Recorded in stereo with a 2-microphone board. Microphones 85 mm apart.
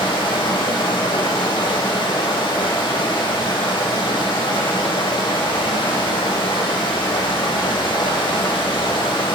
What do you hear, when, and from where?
0.0 s running water: 85° left, 1.0 m